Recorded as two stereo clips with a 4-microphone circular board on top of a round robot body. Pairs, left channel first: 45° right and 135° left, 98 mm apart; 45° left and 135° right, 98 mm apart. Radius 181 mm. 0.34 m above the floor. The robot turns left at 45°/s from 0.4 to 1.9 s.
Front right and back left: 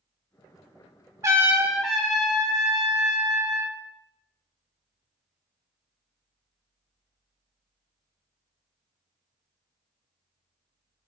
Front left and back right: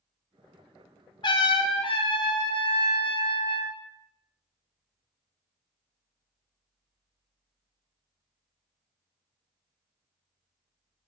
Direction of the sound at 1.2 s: 80° left.